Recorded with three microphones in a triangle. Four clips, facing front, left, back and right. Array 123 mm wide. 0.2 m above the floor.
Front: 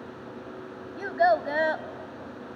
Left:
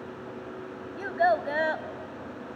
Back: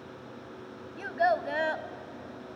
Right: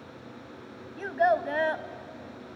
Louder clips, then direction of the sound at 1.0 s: Even, front 4 dB; 15° left.